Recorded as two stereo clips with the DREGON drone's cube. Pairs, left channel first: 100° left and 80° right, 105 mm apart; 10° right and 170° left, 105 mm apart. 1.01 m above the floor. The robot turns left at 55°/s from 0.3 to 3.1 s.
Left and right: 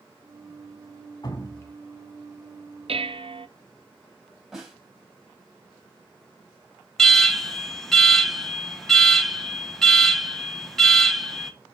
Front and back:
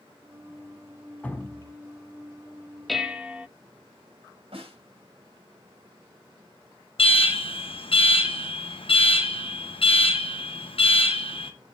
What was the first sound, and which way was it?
Dripping, 65° left.